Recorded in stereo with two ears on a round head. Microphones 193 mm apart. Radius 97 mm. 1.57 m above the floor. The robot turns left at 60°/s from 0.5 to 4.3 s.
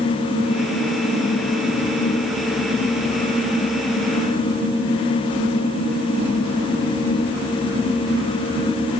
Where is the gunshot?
No gunshot in this recording.